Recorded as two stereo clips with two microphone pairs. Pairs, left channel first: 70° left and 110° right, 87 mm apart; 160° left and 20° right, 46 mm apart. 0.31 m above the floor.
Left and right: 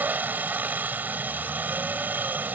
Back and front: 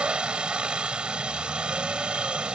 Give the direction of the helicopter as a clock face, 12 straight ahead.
2 o'clock.